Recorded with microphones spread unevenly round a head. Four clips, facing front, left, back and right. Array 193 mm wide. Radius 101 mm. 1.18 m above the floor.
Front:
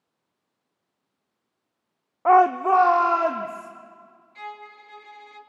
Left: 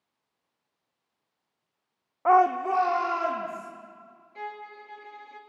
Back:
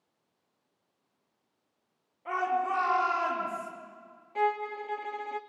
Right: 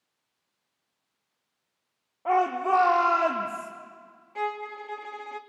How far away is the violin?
About 0.8 m.